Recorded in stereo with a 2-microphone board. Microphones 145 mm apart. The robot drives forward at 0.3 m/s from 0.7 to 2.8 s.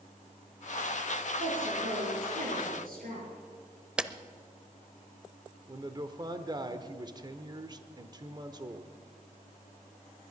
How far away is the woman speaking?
About 7.5 m.